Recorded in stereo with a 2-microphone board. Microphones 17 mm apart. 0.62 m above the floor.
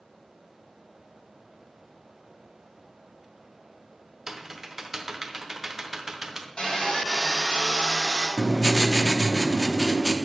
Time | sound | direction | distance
4.3 | typing on a keyboard | 25° right (ahead or behind) | 0.7 m
6.6 | sawing | 75° left (ahead or behind) | 3.5 m
8.4 | writing | 25° right (ahead or behind) | 0.6 m